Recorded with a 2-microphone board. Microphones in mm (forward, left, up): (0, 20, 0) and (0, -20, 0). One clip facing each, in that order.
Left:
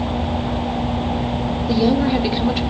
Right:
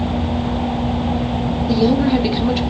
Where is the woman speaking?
5° left (ahead or behind), 1.4 m.